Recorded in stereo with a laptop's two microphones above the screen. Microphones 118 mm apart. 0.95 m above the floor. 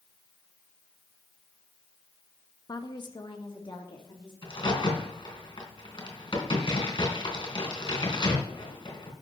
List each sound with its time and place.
2.7 s a woman speaking: 35° left (ahead or behind), 0.8 m; by 4.3 s 45° left (ahead or behind), 2.5 m
4.4 s a crack: 50° left (ahead or behind), 3 m